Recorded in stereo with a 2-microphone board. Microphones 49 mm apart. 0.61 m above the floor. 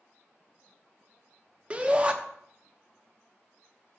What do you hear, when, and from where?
1.7 s a shout: 25° right (ahead or behind), 0.6 m